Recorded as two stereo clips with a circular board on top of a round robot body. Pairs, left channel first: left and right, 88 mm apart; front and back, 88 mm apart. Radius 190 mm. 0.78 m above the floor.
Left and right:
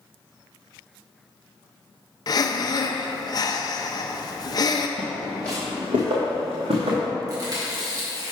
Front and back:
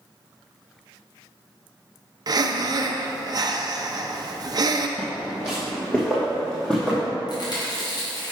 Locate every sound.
2.3 s breathing: 135° left, 0.5 m
5.0 s footsteps: 85° left, 1.1 m; by 7.1 s 85° right, 2.5 m
7.3 s chewing: 40° right, 1.9 m